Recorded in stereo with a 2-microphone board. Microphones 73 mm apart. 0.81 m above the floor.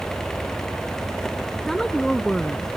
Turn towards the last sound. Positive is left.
turn(degrees=5)  # may be behind; listen again after turning